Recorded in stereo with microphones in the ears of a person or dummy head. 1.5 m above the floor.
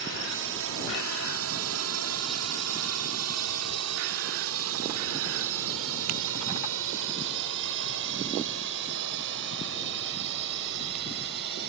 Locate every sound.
0.0 s a drone: 55° right (ahead or behind); by 11.7 s 60° right (ahead or behind)